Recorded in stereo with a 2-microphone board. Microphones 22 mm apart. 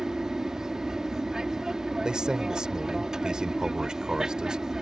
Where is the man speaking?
35° right (ahead or behind).